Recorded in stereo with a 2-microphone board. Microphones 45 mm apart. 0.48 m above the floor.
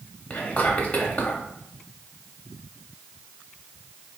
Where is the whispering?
25° left (ahead or behind), 0.7 m.